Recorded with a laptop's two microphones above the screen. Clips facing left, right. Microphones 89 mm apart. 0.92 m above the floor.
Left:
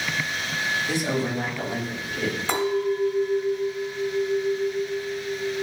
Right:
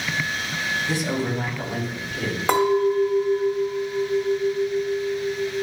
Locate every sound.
0.9 s a man speaking: 30° left (ahead or behind), 4 m
2.5 s a clink: 50° right (ahead or behind), 1.2 m